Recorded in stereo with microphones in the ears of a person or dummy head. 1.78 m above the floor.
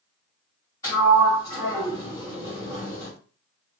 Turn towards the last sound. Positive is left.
turn(degrees=10)  # may be behind; listen again after turning